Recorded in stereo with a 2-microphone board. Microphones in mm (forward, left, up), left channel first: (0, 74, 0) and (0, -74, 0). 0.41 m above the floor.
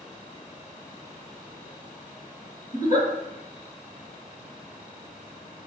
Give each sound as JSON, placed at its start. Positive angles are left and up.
{"t": 2.7, "sound": "a giggle", "side_deg": 55, "distance_m": 1.8}